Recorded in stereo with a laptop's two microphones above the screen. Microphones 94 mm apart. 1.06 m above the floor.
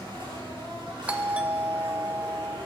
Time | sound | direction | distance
0.0 | an insect | 60° right (ahead or behind) | 5.5 m
1.1 | a doorbell | 15° right (ahead or behind) | 0.7 m